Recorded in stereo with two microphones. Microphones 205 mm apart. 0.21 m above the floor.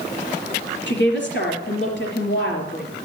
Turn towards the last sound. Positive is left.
turn(degrees=70)  # may be behind; listen again after turning